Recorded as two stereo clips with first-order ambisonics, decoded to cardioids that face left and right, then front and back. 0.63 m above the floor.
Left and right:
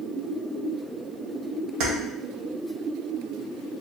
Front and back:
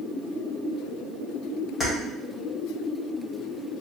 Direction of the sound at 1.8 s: 70° right.